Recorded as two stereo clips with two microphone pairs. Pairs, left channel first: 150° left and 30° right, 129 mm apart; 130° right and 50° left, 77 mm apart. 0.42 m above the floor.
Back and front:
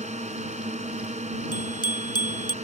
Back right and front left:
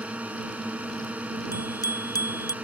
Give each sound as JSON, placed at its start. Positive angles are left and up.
{"t": 0.0, "sound": "a drone", "azimuth_deg": -20}
{"t": 1.5, "sound": "a bicycle bell", "azimuth_deg": -160}